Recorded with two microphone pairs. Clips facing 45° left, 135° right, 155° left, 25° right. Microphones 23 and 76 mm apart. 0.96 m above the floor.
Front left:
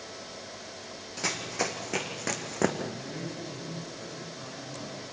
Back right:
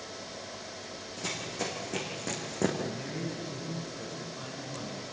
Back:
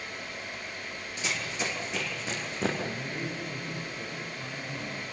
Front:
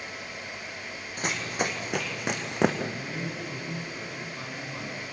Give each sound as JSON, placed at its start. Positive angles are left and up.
{"t": 1.2, "sound": "running footsteps", "azimuth_deg": 10, "distance_m": 2.5}
{"t": 2.8, "sound": "a man speaking", "azimuth_deg": -65, "distance_m": 7.5}